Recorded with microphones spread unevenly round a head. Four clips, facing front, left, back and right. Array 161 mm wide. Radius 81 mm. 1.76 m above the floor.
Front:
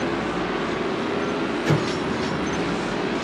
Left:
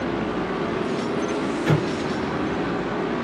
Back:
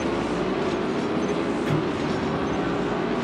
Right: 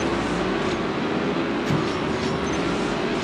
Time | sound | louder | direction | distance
1.7 | an explosion | left 1 dB, front 2 dB | 60° left | 1.7 m